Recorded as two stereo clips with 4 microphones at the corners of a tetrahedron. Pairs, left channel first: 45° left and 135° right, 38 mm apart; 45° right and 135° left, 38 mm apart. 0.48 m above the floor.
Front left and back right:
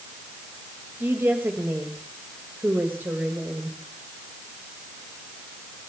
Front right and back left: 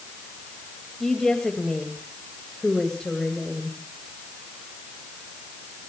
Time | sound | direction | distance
1.0 | a woman speaking | 125° right | 2.5 m